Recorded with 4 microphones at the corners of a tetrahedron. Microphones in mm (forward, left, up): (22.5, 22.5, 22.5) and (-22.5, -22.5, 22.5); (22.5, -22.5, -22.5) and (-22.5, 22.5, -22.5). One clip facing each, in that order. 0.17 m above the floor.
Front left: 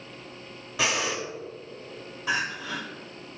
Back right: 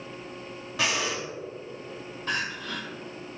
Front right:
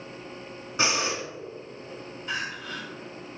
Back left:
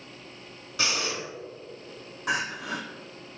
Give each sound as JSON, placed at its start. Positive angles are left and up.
{"t": 0.8, "sound": "breathing", "azimuth_deg": -35, "distance_m": 1.8}
{"t": 2.3, "sound": "crying", "azimuth_deg": 130, "distance_m": 1.8}